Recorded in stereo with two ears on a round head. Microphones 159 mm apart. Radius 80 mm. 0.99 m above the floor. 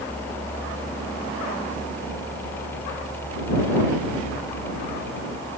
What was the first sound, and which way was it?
Only background noise.